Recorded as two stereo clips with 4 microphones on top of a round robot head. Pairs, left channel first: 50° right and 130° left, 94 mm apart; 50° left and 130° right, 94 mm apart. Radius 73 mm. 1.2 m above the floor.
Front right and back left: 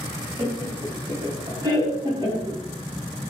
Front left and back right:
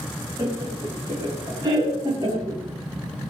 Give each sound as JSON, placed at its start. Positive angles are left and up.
{"t": 0.4, "sound": "laughter", "azimuth_deg": 180, "distance_m": 8.0}